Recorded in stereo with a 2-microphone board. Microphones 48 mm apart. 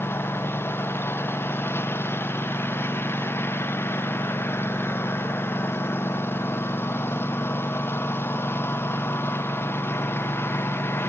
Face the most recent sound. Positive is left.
turn(degrees=50)  # may be behind; listen again after turning